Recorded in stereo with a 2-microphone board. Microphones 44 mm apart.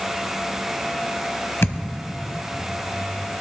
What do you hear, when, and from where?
1.6 s a thud: 60° left (ahead or behind), 1.2 m